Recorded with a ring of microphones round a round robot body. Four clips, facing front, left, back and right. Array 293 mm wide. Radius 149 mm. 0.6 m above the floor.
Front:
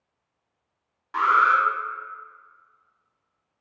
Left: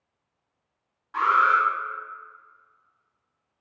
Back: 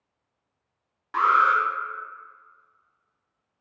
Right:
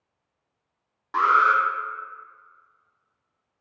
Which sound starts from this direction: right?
An alarm, at 1.1 s.